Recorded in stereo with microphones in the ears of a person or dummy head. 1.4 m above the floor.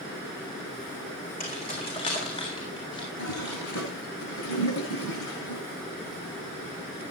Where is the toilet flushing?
80° left, 7 m.